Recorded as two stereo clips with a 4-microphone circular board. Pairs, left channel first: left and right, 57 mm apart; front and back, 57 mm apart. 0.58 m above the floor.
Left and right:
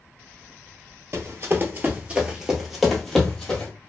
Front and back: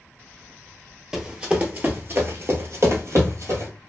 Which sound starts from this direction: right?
Running footsteps, at 1.1 s.